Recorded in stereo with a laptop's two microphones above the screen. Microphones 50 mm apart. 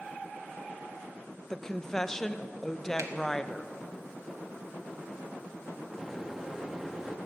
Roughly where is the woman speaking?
Centre.